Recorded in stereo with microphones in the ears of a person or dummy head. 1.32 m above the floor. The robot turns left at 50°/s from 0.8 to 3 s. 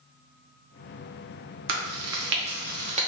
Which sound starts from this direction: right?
Chewing, at 1.7 s.